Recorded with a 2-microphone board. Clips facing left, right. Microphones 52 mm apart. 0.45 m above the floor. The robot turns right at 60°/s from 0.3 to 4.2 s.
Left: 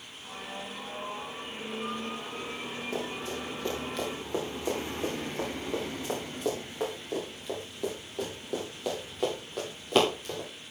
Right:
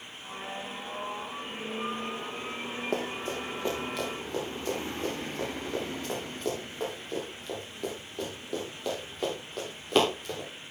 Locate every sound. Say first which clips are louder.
2.9 s running footsteps: right 3 dB; 60° right (ahead or behind), 8.5 m; by 10.5 s centre (ahead or behind), 11 m